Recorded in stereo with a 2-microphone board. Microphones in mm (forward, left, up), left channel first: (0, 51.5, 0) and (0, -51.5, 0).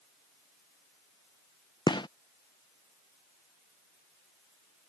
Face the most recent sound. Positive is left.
turn(degrees=45)  # may be behind; listen again after turning